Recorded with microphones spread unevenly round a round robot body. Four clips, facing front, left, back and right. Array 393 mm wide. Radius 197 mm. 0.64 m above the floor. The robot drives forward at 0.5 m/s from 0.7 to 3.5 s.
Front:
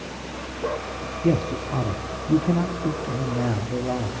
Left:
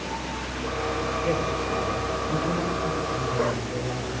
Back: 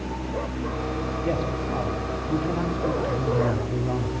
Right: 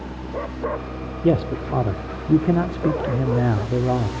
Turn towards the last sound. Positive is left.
turn(degrees=-105)